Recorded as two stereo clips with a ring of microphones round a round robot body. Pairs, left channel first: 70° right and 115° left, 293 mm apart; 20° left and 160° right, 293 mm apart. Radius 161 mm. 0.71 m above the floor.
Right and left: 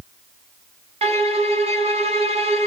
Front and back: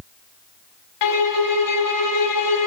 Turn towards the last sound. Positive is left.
turn(degrees=40)